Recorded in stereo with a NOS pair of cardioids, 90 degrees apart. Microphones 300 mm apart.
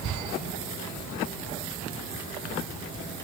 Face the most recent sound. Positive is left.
No sound to turn to.